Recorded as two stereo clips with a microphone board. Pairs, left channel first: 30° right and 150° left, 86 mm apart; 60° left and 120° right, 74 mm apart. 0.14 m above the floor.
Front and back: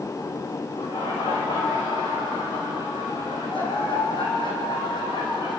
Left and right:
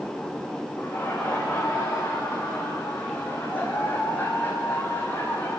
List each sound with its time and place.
0.8 s laughter: 10° right, 8.5 m; by 5.6 s 5° right, 6 m